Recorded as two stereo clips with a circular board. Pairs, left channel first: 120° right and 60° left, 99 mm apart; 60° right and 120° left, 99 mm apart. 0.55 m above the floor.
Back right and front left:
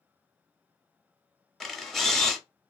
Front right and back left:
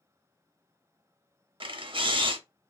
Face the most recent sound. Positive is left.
turn(degrees=155)